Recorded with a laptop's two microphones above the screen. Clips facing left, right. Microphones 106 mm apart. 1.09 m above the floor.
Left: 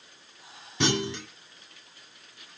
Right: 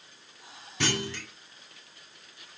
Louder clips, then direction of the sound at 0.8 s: Left 4 dB; 20° left (ahead or behind).